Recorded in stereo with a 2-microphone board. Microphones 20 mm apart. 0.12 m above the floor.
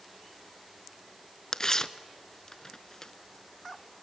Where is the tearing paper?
25° left (ahead or behind), 0.8 m.